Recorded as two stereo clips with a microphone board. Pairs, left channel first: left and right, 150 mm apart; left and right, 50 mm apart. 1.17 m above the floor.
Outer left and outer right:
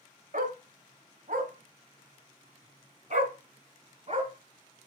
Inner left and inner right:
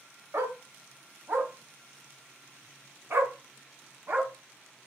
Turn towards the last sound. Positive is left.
turn(degrees=-45)  # may be behind; listen again after turning